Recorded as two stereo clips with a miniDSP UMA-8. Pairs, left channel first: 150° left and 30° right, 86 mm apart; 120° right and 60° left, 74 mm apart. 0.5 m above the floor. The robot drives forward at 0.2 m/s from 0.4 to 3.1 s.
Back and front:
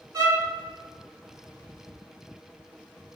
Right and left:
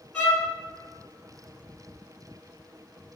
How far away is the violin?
About 1.4 m.